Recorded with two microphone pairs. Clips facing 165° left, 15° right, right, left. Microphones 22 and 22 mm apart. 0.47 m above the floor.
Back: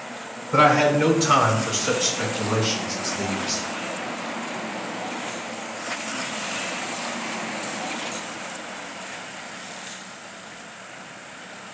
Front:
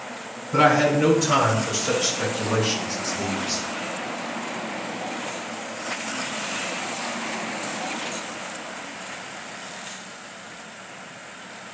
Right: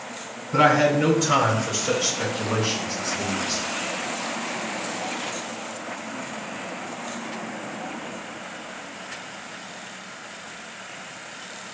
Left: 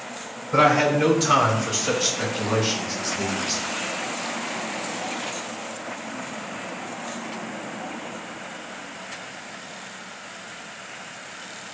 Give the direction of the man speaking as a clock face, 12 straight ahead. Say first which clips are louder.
Back 1 dB, even; 8 o'clock.